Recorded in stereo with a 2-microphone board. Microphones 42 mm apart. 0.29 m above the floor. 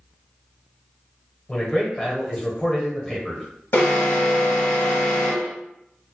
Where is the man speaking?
15° left (ahead or behind), 0.9 m.